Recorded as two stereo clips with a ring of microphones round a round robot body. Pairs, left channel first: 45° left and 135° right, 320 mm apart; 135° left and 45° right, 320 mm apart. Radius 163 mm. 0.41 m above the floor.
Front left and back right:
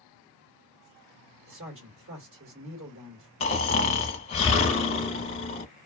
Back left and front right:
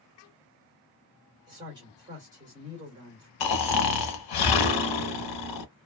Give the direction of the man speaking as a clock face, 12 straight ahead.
4 o'clock.